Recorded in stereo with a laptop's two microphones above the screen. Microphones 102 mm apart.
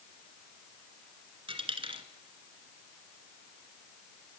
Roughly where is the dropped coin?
Right.